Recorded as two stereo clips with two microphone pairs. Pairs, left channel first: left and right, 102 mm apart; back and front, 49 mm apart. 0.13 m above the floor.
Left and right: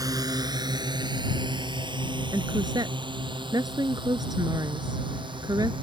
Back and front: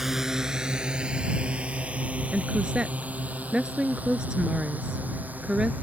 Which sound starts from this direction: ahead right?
A woman speaking, at 2.3 s.